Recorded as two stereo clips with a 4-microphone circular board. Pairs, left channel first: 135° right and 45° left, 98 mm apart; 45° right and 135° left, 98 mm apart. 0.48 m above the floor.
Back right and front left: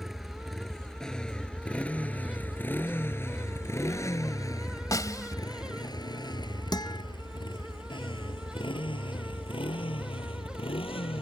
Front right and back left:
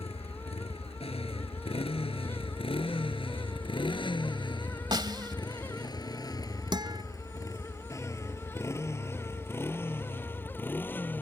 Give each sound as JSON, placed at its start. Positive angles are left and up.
{"t": 0.0, "sound": "a motorcycle", "azimuth_deg": -45}
{"t": 4.9, "sound": "a snare drum", "azimuth_deg": 175}
{"t": 6.7, "sound": "a guitar", "azimuth_deg": 180}